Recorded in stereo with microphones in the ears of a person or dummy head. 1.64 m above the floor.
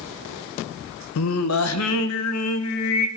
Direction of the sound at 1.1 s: 80° left.